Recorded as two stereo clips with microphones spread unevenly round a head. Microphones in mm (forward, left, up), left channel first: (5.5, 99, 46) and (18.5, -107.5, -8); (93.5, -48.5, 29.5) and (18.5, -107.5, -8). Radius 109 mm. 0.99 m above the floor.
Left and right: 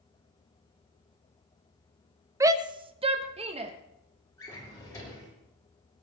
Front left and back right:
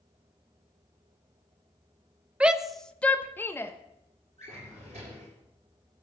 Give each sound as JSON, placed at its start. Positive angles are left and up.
{"t": 2.4, "sound": "a shout", "azimuth_deg": -125, "distance_m": 0.7}
{"t": 4.4, "sound": "a drawer", "azimuth_deg": 170, "distance_m": 4.5}